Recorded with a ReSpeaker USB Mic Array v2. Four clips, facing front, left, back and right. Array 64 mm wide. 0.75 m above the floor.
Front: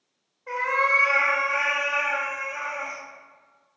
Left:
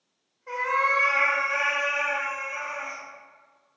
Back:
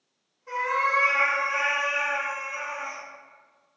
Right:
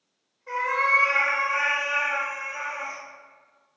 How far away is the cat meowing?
About 1.2 m.